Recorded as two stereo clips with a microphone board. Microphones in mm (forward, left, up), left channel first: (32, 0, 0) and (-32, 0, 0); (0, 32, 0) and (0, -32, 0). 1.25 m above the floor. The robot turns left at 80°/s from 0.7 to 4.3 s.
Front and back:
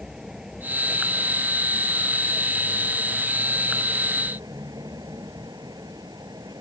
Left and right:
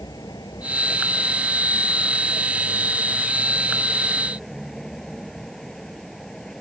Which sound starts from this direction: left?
A vehicle, at 0.0 s.